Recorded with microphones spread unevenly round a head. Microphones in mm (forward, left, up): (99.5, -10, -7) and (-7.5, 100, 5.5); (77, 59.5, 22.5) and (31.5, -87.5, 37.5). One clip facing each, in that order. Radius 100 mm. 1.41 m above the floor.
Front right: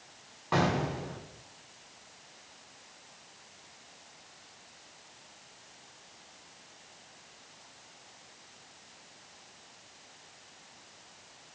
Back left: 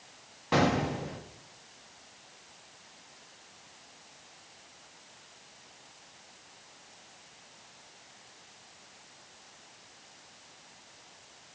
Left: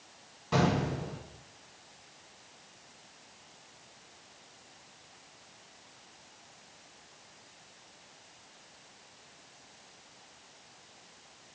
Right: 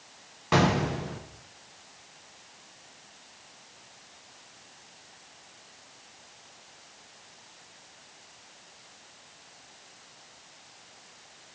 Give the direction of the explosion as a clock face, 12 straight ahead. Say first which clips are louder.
Back left 2 dB, right 4 dB; 5 o'clock.